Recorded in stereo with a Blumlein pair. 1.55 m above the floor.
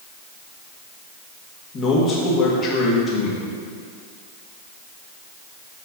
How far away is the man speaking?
About 2.0 m.